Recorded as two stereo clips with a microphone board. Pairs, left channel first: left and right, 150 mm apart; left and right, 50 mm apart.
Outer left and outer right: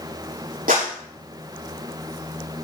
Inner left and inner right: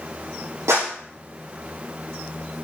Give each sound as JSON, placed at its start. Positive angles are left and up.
{"t": 0.7, "sound": "a clap", "side_deg": -85, "distance_m": 6.5}